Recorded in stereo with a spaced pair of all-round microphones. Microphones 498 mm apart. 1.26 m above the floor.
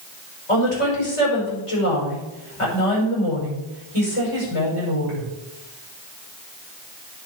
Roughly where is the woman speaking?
Left.